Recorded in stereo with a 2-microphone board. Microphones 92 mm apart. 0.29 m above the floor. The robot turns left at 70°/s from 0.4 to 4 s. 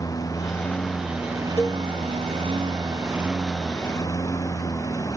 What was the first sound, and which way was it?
A lawn mower, 35° left.